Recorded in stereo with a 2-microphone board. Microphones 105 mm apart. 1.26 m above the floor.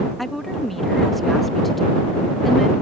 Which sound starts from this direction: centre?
A woman speaking, at 0.2 s.